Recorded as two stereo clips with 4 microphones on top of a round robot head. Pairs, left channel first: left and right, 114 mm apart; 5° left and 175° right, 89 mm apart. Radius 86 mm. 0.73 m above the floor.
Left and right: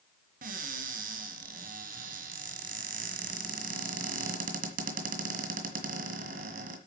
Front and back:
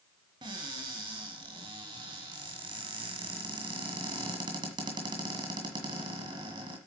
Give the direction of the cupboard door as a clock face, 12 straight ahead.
4 o'clock.